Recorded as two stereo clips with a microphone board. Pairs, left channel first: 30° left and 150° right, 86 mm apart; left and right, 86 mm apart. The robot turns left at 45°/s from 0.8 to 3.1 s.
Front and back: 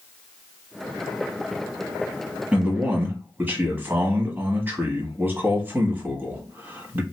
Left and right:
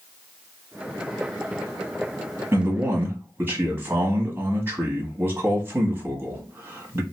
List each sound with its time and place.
2.5 s a man speaking: 85° right, 1.2 m; by 7.0 s 115° right, 1.2 m